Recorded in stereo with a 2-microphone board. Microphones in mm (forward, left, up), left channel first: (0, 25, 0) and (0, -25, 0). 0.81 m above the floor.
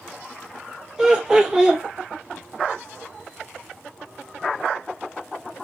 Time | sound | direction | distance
1.0 | laughter | 15° right (ahead or behind) | 0.8 m